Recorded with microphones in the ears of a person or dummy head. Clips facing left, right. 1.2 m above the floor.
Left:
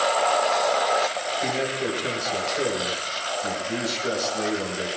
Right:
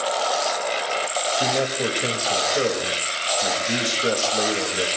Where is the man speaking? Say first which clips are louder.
Right 3 dB; 85° right, 5 m.